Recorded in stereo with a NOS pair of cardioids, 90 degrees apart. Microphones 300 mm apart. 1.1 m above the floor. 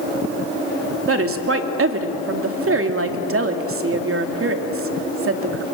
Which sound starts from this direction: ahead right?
A woman speaking, at 1.1 s.